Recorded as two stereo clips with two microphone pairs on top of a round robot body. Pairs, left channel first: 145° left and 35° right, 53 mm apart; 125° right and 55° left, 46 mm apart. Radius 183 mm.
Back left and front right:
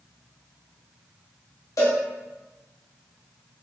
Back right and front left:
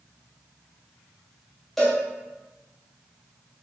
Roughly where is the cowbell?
Behind left.